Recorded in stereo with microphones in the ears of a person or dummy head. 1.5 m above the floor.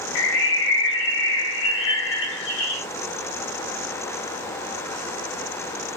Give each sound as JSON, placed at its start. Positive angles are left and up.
{"t": 0.1, "sound": "a bird", "side_deg": 75, "distance_m": 0.6}